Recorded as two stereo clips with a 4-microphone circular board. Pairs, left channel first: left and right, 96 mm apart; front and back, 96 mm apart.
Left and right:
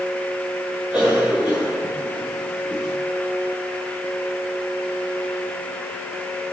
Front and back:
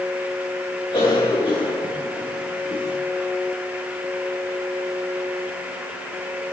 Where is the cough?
10° right, 8 m.